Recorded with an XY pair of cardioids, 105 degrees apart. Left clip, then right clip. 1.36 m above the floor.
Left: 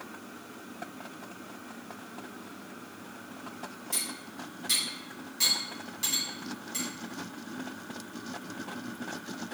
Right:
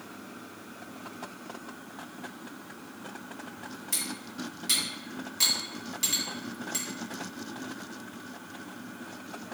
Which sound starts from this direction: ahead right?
Cutlery clinking, at 3.9 s.